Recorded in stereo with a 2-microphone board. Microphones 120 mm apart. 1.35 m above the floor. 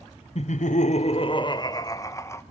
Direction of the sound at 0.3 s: 55° left (ahead or behind).